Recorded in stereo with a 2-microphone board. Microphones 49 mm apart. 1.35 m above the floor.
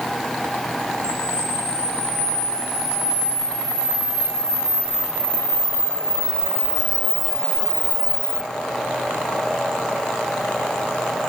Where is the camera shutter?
20° left (ahead or behind), 9.5 m.